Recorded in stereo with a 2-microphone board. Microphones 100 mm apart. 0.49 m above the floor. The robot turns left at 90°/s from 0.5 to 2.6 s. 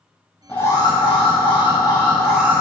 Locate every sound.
0.5 s an alarm: 160° left, 3 m; by 2.6 s 25° right, 3 m